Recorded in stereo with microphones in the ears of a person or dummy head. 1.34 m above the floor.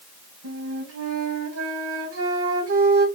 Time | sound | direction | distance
0.4 | a flute | 75° right (ahead or behind) | 2.5 m